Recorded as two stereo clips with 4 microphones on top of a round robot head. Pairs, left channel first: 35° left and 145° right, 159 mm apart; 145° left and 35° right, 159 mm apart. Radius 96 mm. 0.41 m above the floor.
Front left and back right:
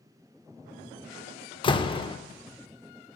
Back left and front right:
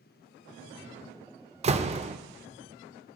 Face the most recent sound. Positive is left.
turn(degrees=-10)